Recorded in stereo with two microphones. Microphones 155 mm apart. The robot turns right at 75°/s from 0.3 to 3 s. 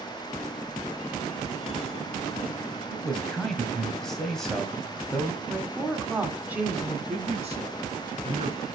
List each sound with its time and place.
2.9 s a man speaking: centre (ahead or behind), 1.9 m; by 5.4 s 5° left (ahead or behind), 1.9 m
5.5 s a woman speaking: 10° right (ahead or behind), 1.8 m
7.1 s a man speaking: 45° right (ahead or behind), 2.5 m